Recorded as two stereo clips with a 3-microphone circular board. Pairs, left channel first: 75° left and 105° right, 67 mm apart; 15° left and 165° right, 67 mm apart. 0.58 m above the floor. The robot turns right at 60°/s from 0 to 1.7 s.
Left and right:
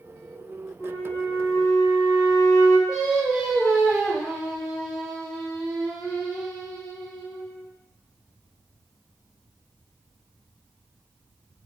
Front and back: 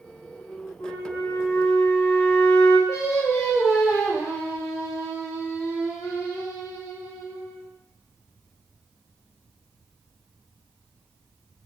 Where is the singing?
25° right, 1.1 m.